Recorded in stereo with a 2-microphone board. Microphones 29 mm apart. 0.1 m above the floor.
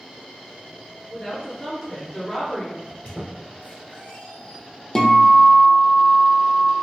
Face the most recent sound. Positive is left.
turn(degrees=25)  # may be behind; listen again after turning